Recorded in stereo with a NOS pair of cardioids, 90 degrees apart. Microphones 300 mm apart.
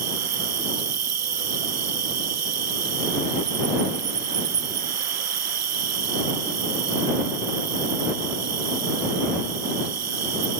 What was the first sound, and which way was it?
An insect, 60° right.